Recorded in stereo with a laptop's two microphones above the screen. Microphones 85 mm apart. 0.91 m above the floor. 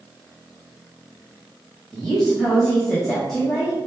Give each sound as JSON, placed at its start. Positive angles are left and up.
{"t": 1.9, "sound": "a woman speaking", "side_deg": 5, "distance_m": 0.7}